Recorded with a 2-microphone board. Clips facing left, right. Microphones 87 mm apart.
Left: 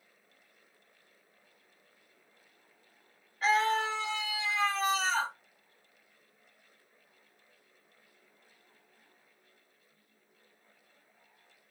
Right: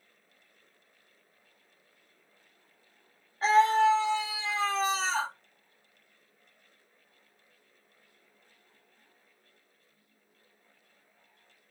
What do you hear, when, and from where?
3.4 s a scream: 35° right (ahead or behind), 1.6 m